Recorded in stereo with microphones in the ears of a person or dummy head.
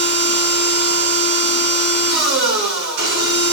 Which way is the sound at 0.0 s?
70° right (ahead or behind).